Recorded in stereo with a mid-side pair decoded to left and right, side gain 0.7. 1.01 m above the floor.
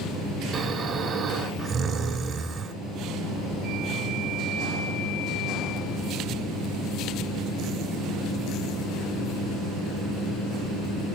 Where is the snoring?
40° right, 2.5 m.